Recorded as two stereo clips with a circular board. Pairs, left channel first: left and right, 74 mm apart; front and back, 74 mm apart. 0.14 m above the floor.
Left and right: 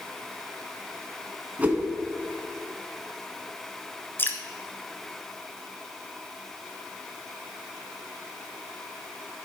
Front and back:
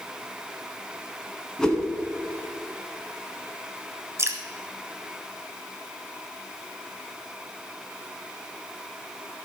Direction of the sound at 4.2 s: 140° left.